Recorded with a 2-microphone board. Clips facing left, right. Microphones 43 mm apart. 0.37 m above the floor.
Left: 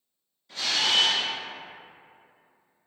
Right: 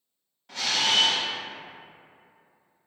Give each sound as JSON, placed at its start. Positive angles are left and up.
{"t": 0.5, "sound": "a camera shutter", "side_deg": -65, "distance_m": 0.8}